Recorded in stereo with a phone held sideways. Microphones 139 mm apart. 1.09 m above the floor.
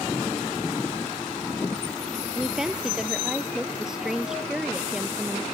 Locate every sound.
2.4 s a woman speaking: 5° right (ahead or behind)